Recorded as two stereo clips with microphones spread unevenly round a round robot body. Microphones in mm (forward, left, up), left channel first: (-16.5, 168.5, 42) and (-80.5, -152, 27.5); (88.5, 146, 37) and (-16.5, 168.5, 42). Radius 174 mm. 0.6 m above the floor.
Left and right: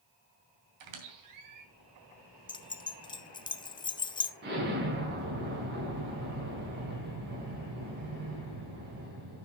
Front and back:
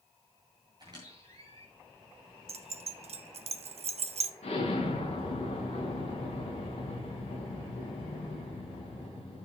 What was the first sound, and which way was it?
A squeak, 120° right.